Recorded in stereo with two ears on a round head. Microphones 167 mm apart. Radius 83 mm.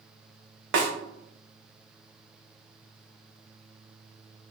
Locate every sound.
0.7 s a snare drum: 65° right (ahead or behind), 0.6 m